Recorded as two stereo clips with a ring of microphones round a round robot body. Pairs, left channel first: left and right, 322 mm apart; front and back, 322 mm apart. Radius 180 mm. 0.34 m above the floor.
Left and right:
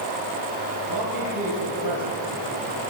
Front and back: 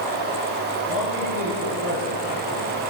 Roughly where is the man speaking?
Behind right.